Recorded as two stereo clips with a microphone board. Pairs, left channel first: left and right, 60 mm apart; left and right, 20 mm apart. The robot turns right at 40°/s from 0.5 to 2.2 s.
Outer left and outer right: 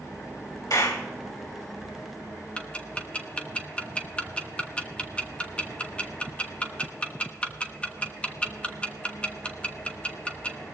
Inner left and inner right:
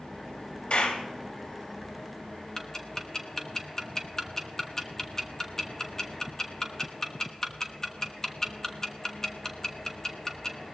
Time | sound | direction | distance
0.7 | a clap | 85° left | 3 m
2.6 | ticking | 20° left (ahead or behind) | 1.1 m